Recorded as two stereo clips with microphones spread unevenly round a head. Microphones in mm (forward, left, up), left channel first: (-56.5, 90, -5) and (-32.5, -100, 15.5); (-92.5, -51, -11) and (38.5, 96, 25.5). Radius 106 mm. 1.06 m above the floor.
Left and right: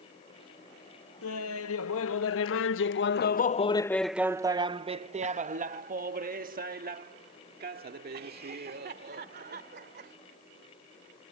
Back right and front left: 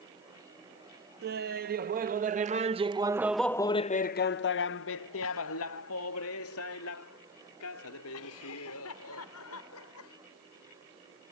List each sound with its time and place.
1.2 s laughter: 90° left; by 10.2 s 120° right